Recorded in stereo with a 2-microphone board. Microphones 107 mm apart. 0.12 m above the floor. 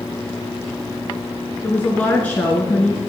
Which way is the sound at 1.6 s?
15° left (ahead or behind).